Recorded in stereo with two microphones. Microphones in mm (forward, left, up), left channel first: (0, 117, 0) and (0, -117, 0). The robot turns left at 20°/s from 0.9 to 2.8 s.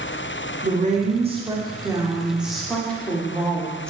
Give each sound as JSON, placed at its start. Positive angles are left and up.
{"t": 0.6, "sound": "a woman speaking", "azimuth_deg": -145, "distance_m": 0.8}